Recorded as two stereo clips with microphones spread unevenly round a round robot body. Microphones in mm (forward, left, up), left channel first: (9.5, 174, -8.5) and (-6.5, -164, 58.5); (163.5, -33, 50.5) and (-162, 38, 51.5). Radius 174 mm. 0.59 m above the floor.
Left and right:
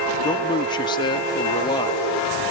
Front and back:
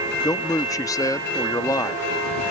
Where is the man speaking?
55° left.